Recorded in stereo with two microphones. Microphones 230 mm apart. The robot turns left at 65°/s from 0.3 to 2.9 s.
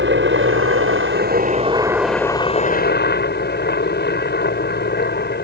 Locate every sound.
0.0 s a helicopter: 65° right; by 5.5 s 125° left